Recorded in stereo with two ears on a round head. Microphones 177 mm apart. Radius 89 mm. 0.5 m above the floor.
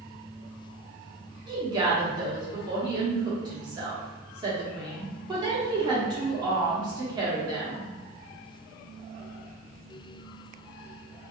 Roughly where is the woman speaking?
Right.